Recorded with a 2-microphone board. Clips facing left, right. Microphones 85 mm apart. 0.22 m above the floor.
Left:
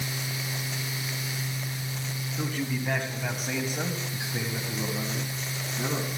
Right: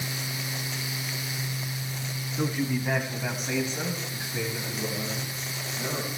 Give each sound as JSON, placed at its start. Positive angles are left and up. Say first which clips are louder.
{"t": 2.4, "sound": "a man speaking", "louder": "right 4 dB", "side_deg": -15, "distance_m": 2.0}